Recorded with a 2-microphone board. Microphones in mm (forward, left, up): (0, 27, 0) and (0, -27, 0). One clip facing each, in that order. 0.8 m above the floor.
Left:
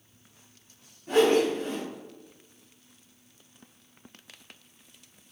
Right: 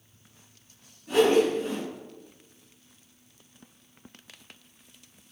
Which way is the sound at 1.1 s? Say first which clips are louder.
Right 1 dB; 45° left (ahead or behind).